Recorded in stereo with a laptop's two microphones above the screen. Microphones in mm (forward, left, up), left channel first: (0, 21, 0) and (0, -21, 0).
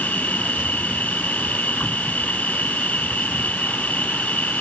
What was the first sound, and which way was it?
An insect, 40° left (ahead or behind).